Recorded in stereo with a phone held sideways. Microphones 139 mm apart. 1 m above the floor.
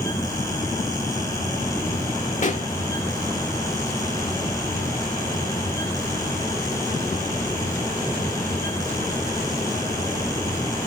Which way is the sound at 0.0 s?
25° left (ahead or behind).